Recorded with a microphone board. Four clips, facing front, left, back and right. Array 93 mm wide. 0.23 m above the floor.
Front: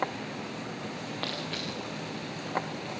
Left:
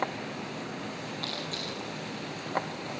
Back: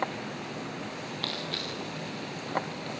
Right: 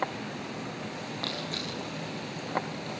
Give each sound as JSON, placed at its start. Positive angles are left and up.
{"t": 1.2, "sound": "crushing", "azimuth_deg": -25, "distance_m": 6.5}